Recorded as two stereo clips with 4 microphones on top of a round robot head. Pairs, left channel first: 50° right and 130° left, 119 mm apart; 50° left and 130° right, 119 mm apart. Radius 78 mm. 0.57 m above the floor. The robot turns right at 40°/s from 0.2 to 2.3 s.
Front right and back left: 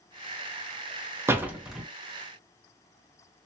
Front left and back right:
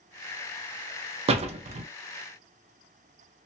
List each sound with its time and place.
1.3 s a door slam: 160° right, 0.6 m; by 1.9 s 135° right, 0.6 m